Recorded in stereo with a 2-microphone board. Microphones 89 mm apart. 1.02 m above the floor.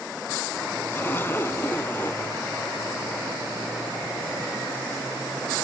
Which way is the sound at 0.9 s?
25° left (ahead or behind).